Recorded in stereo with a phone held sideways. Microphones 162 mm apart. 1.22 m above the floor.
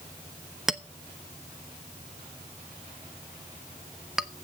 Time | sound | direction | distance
0.7 | a clink | centre (ahead or behind) | 0.7 m